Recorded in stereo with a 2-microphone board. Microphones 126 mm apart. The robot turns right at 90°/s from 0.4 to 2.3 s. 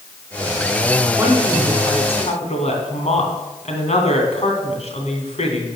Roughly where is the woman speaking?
Ahead.